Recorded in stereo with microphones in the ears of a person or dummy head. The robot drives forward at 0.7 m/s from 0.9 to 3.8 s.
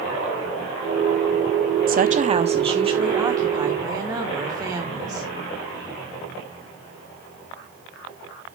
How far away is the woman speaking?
About 0.5 m.